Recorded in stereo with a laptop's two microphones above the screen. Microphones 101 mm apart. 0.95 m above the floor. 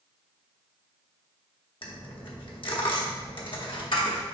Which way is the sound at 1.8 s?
60° left (ahead or behind).